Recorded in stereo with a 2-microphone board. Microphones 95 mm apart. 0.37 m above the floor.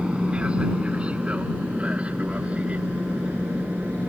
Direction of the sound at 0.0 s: 10° right (ahead or behind).